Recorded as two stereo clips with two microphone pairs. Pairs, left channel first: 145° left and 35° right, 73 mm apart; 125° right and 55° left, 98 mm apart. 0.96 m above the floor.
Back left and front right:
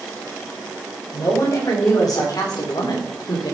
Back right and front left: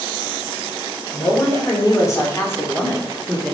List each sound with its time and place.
1.1 s a woman speaking: 175° right, 4 m; by 3.5 s 150° left, 2.5 m